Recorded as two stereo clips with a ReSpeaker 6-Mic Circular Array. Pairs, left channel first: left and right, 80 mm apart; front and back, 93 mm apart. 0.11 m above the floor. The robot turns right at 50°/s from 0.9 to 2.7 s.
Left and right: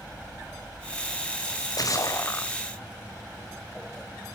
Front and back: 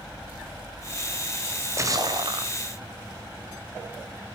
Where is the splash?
105° left, 1.4 m; by 2.5 s 160° left, 1.4 m.